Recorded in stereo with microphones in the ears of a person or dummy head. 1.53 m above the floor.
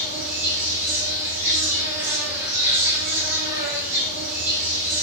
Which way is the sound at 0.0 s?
10° right (ahead or behind).